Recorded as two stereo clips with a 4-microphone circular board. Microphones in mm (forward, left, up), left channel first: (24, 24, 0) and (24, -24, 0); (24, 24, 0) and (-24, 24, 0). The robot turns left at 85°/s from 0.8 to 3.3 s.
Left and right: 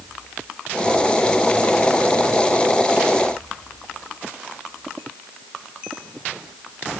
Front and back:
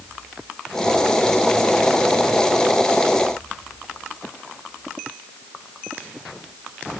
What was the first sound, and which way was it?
Only background noise.